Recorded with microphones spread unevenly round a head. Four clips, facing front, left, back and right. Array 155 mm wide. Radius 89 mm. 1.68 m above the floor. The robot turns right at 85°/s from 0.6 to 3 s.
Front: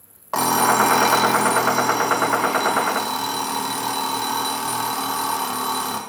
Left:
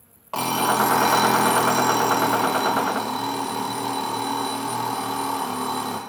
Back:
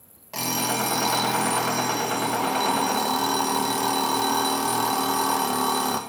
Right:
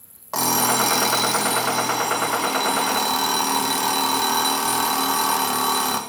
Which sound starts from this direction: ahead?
An alarm clock, at 0.3 s.